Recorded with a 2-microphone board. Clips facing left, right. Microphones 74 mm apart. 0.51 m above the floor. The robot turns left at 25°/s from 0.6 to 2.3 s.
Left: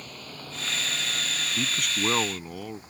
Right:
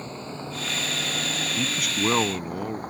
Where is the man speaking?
5° left (ahead or behind); by 2.8 s 15° right (ahead or behind).